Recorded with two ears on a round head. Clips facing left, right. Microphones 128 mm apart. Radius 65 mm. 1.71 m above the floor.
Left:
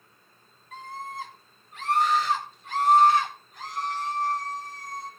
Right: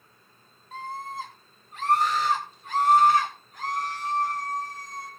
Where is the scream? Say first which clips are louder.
Right 2 dB; 25° right (ahead or behind), 6.5 m; by 5.1 s 45° right (ahead or behind), 10.5 m.